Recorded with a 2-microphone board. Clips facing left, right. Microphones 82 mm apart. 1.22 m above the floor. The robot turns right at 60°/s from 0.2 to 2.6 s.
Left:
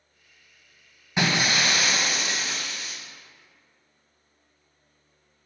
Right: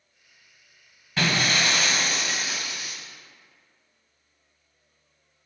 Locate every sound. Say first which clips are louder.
1.2 s breaking glass: even; 20° left (ahead or behind), 1.1 m; by 3.0 s 10° right (ahead or behind), 1.1 m